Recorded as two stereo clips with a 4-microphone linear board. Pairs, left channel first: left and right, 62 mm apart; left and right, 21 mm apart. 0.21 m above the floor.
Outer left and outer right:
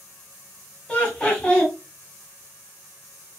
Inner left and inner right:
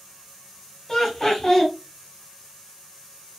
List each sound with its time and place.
0.9 s laughter: 15° left (ahead or behind), 1.1 m